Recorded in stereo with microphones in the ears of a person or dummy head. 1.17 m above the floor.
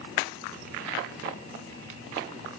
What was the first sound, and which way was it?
Only background noise.